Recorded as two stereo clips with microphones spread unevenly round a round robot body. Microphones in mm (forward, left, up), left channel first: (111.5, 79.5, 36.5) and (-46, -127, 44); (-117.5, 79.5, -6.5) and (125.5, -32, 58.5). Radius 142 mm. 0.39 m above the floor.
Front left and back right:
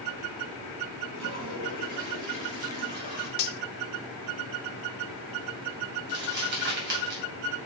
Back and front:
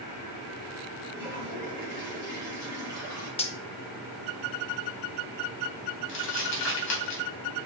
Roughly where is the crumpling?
Behind.